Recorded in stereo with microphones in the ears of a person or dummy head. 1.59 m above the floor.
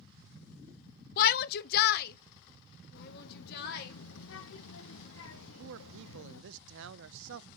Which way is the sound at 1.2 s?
55° left (ahead or behind).